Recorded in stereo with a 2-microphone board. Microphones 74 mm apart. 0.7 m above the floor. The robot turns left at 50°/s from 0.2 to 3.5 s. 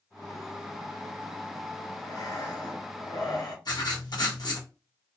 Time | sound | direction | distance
2.0 | breathing | 135° left | 1.6 m
3.6 | writing | 65° left (ahead or behind) | 0.9 m